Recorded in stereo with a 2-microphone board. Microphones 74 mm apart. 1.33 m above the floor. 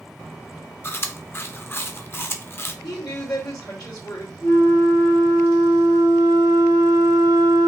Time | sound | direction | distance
0.8 | chewing | 35° left (ahead or behind) | 0.6 m
2.8 | a woman speaking | 70° left (ahead or behind) | 2.5 m
4.4 | a flute | 65° left (ahead or behind) | 1.6 m